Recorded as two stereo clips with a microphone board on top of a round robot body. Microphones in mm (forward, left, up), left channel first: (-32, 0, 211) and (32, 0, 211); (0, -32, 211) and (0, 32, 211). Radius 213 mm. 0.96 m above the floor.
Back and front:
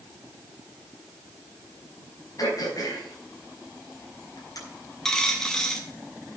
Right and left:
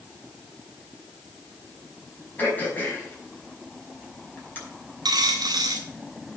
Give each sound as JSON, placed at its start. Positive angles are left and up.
{"t": 2.4, "sound": "throat clearing", "azimuth_deg": -150, "distance_m": 5.5}
{"t": 5.0, "sound": "a dropped coin", "azimuth_deg": 100, "distance_m": 0.6}